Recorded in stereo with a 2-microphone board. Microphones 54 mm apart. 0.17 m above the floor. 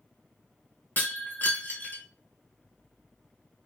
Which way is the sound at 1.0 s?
40° left (ahead or behind).